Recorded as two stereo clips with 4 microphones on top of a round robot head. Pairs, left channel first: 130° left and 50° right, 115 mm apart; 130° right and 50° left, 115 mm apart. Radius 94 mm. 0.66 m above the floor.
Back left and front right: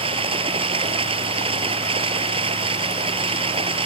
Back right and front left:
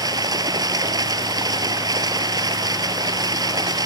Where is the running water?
10° right.